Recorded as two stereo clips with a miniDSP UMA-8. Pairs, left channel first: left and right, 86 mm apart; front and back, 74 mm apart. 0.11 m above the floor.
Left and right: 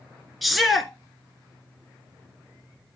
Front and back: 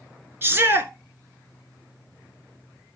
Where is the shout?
Straight behind, 1.5 m.